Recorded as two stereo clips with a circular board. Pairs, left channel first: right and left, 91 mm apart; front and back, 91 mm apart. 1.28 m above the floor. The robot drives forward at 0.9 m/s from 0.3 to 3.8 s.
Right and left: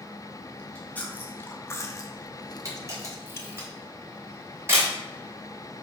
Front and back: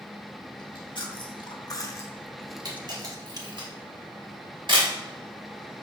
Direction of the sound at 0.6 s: 15° right.